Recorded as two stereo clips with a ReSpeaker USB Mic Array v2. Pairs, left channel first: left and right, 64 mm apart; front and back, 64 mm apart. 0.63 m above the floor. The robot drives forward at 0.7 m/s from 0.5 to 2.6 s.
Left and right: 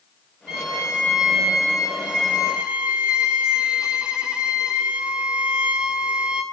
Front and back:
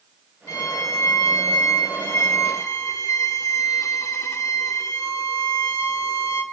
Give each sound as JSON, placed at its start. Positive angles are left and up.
{"t": 0.5, "sound": "a violin", "azimuth_deg": -10, "distance_m": 3.0}